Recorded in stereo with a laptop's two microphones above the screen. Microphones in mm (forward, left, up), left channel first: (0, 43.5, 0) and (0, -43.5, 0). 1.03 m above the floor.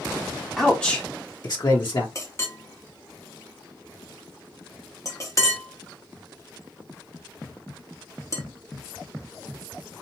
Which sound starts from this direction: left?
A clink, at 2.1 s.